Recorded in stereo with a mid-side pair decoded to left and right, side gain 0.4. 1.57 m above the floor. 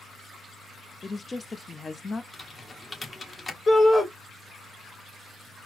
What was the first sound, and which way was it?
A woman speaking, 25° left.